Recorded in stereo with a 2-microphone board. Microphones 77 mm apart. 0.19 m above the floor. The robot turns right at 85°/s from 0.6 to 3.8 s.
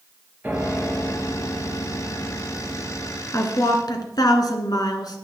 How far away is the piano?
About 2.5 m.